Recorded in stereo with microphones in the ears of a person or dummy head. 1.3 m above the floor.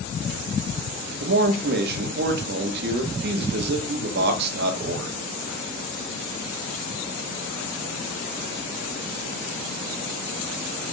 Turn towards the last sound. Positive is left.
turn(degrees=-60)  # may be behind; listen again after turning